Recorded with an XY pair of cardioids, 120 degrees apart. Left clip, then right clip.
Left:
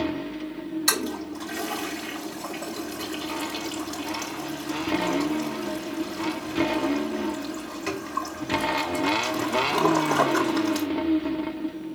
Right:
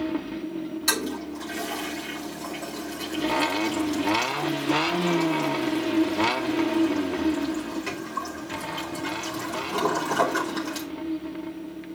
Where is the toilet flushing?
20° left, 4 m.